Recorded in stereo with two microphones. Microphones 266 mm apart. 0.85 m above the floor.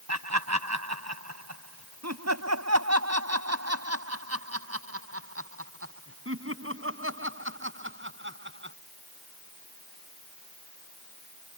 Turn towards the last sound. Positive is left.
turn(degrees=-45)  # may be behind; listen again after turning